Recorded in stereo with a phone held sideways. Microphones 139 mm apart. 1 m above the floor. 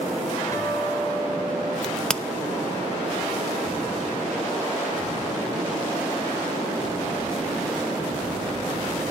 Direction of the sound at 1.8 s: 5° left (ahead or behind).